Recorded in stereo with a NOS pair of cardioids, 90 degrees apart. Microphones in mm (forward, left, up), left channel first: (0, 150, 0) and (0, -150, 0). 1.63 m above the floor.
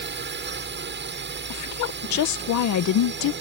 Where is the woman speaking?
70° left.